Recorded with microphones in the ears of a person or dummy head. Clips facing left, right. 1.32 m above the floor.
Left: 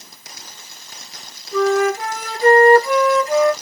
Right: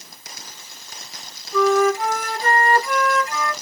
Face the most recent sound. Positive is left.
turn(degrees=70)  # may be behind; listen again after turning